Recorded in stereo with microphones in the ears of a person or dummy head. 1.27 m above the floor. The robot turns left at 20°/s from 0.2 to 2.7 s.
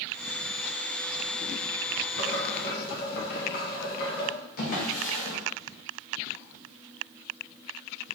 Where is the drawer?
55° left (ahead or behind), 0.8 m.